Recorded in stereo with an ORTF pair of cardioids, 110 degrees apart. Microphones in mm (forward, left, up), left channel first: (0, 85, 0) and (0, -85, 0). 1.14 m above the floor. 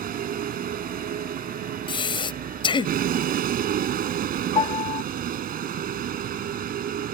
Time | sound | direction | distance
0.0 | a vehicle | 60° right | ?
1.9 | breathing | 30° left | ?
4.5 | a piano | 35° left | ?